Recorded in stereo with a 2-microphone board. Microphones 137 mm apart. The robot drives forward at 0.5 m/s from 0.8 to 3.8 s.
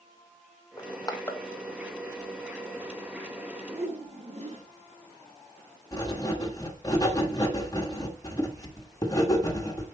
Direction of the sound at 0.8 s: 30° left (ahead or behind).